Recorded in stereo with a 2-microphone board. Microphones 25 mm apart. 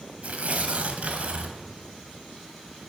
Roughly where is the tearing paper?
Right.